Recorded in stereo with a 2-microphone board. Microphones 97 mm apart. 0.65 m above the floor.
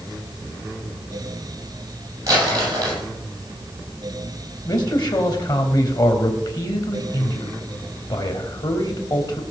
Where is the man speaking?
50° left (ahead or behind), 3 m.